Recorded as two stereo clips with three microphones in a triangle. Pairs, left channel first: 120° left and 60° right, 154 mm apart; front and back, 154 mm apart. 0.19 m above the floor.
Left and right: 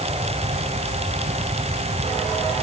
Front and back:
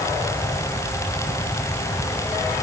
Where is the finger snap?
I don't hear a finger snap.